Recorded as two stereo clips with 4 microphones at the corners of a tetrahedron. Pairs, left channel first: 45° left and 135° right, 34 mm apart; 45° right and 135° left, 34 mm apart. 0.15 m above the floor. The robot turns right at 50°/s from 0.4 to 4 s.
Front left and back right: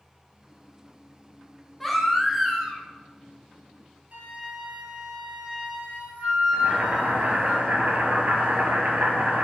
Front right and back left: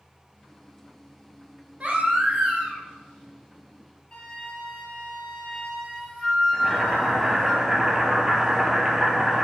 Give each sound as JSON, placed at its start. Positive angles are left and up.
{"t": 1.8, "sound": "a baby crying", "azimuth_deg": 125, "distance_m": 0.7}
{"t": 4.1, "sound": "a flute", "azimuth_deg": -100, "distance_m": 1.3}
{"t": 6.5, "sound": "boiling", "azimuth_deg": -155, "distance_m": 0.8}